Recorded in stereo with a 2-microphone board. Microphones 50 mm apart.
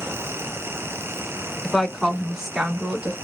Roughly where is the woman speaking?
Centre.